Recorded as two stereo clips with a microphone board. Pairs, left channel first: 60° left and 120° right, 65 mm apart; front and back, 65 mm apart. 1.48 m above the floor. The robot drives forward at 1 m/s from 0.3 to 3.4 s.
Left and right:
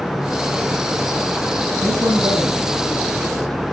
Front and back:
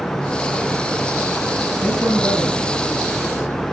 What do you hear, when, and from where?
1.8 s a man speaking: 120° right, 10 m; by 3.6 s 130° right, 10.5 m